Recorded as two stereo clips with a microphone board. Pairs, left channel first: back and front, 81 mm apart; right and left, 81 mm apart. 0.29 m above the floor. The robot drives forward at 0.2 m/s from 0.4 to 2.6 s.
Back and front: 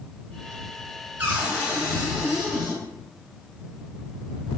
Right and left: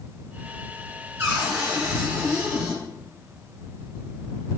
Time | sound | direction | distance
1.2 | a cupboard door | 55° left | 1.3 m